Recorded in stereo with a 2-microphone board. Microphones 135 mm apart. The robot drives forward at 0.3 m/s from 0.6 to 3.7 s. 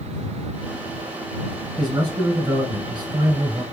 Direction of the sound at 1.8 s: 30° right (ahead or behind).